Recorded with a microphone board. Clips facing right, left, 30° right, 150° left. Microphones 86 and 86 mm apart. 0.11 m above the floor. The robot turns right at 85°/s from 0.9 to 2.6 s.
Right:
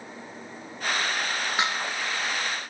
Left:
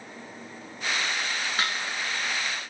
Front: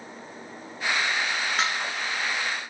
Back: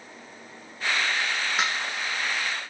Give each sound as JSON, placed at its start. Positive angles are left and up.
{"t": 1.6, "sound": "dishes clattering", "azimuth_deg": -130, "distance_m": 0.8}